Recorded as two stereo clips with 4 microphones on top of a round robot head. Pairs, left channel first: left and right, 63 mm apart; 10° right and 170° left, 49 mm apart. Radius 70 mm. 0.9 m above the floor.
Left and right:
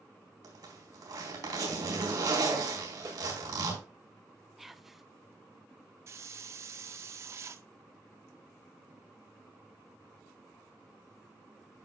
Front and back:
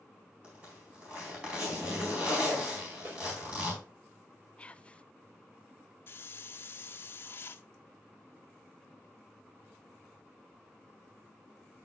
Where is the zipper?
115° right, 4 m.